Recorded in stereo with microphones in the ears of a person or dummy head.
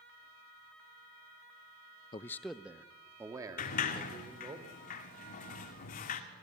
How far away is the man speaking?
About 0.5 m.